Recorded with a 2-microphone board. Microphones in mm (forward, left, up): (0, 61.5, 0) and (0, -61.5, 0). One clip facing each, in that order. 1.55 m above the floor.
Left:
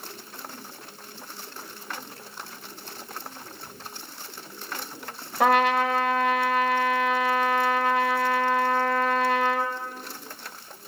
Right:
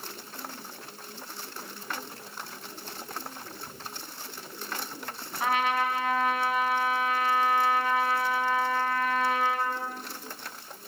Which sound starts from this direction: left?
A trumpet, at 5.4 s.